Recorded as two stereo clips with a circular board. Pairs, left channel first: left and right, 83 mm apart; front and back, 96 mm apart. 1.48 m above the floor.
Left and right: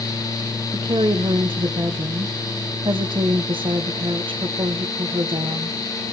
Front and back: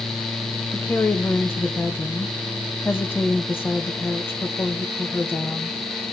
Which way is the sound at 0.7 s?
70° right.